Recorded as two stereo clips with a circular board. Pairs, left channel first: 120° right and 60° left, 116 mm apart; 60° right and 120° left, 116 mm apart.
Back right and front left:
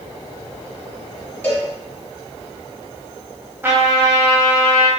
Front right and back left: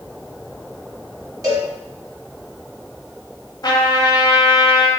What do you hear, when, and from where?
1.4 s a cowbell: 175° left, 1.2 m
3.6 s a trumpet: 10° right, 0.6 m